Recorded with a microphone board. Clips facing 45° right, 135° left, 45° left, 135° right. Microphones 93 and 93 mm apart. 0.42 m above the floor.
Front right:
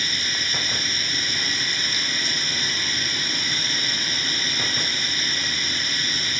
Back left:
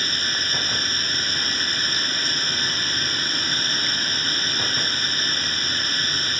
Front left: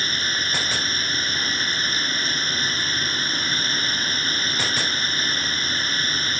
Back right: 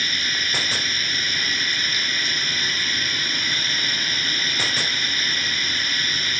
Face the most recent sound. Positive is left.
turn(degrees=95)